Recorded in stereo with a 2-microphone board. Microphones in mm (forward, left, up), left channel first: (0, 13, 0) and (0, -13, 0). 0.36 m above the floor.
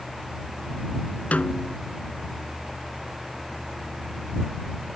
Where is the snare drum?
70° left (ahead or behind).